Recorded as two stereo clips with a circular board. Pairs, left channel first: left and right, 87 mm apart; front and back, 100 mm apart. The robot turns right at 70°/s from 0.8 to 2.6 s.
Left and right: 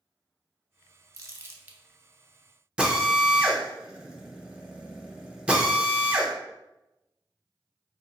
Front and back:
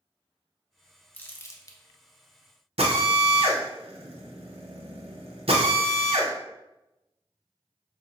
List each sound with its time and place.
1.1 s crumpling: 65° right, 0.7 m; by 1.8 s 20° right, 0.7 m
2.8 s a drill: 165° right, 0.8 m